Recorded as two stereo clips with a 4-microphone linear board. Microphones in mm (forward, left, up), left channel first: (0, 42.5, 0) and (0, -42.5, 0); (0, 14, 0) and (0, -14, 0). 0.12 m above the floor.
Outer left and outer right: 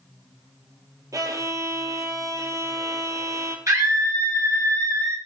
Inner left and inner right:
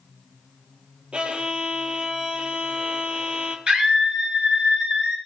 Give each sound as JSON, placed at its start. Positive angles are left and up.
{"t": 1.1, "sound": "a violin", "side_deg": -40, "distance_m": 0.5}
{"t": 3.7, "sound": "a scream", "side_deg": -40, "distance_m": 1.4}